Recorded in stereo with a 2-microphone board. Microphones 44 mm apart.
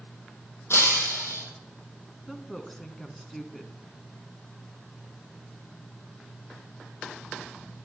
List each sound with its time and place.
0.7 s breaking glass: 75° left (ahead or behind), 3 m
2.3 s a woman speaking: 5° left (ahead or behind), 1.1 m